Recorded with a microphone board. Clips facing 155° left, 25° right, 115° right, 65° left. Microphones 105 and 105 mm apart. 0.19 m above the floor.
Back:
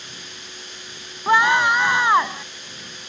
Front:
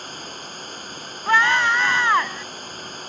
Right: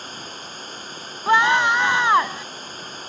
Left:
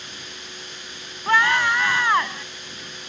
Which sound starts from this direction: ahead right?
Running water, at 0.0 s.